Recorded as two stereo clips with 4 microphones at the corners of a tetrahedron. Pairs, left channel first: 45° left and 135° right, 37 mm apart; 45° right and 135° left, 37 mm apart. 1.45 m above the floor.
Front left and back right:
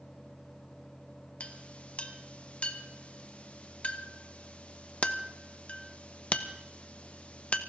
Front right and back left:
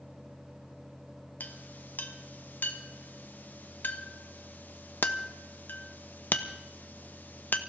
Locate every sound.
1.4 s a clink: 10° right, 1.2 m